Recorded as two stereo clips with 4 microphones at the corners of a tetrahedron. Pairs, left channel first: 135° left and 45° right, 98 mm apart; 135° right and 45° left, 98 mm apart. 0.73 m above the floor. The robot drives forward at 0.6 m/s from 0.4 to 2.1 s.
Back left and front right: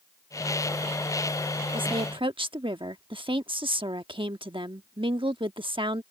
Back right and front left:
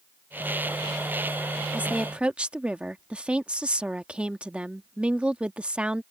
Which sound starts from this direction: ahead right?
A woman speaking, at 1.7 s.